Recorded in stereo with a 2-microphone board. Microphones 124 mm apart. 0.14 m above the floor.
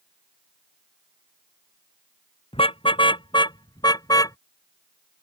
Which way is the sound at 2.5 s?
45° left (ahead or behind).